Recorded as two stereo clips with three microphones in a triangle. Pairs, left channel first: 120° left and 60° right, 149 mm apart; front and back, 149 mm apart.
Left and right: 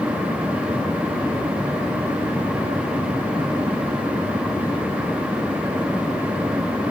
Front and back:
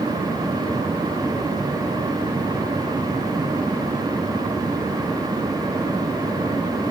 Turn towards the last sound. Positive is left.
No sound to turn to.